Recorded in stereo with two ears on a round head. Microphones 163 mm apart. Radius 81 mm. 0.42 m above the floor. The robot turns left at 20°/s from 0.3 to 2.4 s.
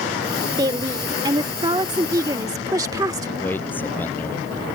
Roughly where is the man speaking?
Centre.